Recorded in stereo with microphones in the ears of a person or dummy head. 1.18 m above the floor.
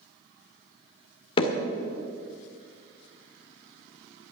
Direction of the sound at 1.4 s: 25° left (ahead or behind).